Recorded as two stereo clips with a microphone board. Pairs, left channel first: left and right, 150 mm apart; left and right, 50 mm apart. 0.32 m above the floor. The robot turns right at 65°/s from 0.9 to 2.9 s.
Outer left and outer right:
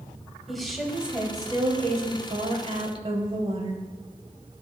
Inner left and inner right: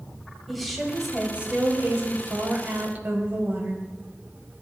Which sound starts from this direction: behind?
A woman speaking, at 0.5 s.